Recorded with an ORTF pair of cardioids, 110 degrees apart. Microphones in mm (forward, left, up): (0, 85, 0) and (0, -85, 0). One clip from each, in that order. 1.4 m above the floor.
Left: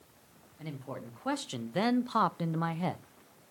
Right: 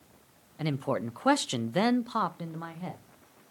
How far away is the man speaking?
About 0.9 m.